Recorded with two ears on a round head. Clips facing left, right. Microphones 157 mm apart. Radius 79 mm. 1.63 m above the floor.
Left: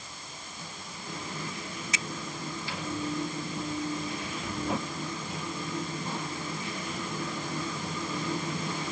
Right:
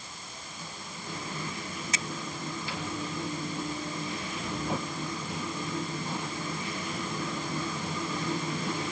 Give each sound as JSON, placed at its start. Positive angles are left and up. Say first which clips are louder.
{"t": 1.9, "sound": "a finger snap", "louder": "even", "side_deg": -35}